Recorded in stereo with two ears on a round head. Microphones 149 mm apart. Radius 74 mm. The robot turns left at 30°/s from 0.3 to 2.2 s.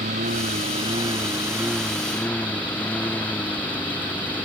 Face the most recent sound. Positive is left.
turn(degrees=10)  # may be behind; listen again after turning